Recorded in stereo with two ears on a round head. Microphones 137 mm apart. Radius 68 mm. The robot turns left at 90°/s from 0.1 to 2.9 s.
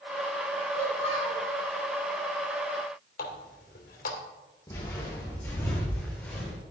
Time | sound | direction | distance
0.8 | a child speaking | 70° left | 4.5 m
3.2 | a running tap | 60° left (ahead or behind) | 3 m
4.7 | footsteps | 25° left (ahead or behind) | 4 m